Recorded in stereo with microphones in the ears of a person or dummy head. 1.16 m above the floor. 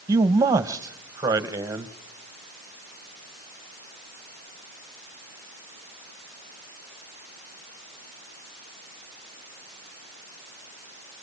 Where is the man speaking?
20° right (ahead or behind), 1.5 m.